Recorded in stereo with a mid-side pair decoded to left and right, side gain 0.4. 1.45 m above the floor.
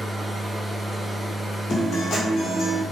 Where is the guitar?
65° left, 1.6 m.